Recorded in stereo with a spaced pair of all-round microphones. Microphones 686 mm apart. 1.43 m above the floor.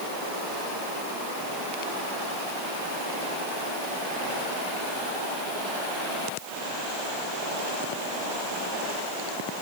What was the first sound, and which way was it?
Only background noise.